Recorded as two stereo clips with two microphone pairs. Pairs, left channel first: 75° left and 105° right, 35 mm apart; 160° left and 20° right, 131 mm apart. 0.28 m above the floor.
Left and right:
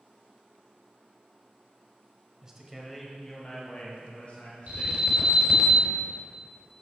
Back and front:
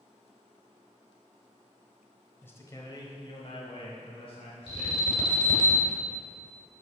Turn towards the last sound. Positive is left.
turn(degrees=-145)